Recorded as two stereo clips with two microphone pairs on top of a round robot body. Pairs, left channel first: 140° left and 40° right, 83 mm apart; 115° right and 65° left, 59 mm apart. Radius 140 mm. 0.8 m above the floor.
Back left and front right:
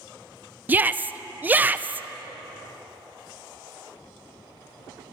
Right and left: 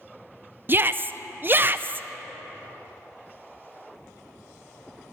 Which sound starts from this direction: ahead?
A shout, at 0.7 s.